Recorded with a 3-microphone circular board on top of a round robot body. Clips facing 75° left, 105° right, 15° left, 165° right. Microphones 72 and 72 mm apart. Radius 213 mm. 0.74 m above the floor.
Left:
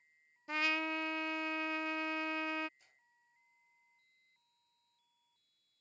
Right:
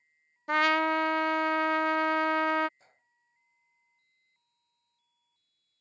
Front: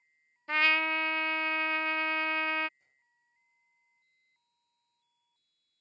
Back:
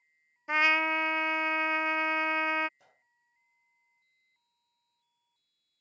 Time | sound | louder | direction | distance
0.5 | a trumpet | right 12 dB, back 2 dB | 90° right | ?
2.8 | a gunshot | right 6 dB, back 8 dB | 160° right | ?